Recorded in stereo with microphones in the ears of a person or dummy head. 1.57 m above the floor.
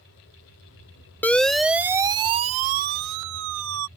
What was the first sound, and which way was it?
A siren, 15° left (ahead or behind).